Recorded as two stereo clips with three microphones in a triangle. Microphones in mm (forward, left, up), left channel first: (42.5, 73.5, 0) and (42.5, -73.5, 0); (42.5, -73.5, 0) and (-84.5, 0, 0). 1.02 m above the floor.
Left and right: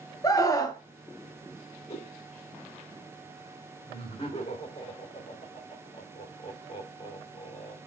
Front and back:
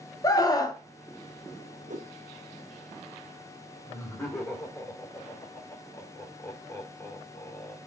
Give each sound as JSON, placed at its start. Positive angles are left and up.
{"t": 0.2, "sound": "a scream", "azimuth_deg": 30, "distance_m": 1.1}
{"t": 1.9, "sound": "a whoosh", "azimuth_deg": 130, "distance_m": 0.8}
{"t": 3.9, "sound": "laughter", "azimuth_deg": 40, "distance_m": 3.5}